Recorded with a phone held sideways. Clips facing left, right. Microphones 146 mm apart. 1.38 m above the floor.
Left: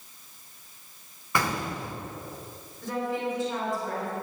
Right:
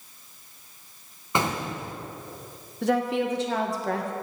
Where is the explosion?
20° right (ahead or behind), 0.8 m.